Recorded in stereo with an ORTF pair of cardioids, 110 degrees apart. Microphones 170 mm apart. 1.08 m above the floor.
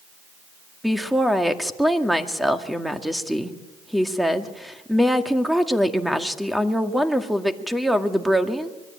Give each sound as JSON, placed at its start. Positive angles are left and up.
{"t": 0.8, "sound": "a woman speaking", "azimuth_deg": 0, "distance_m": 1.9}